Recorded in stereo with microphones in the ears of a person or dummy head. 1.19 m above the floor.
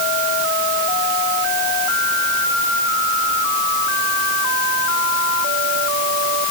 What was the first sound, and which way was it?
Only background noise.